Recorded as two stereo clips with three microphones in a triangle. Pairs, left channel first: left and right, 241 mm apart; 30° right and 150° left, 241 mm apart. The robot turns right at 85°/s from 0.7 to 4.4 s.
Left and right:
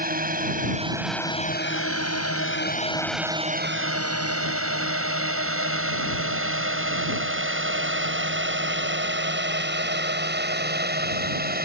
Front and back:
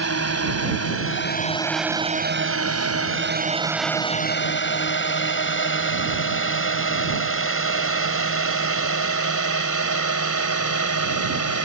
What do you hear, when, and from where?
0.0 s a drone: 35° right; by 11.7 s 40° right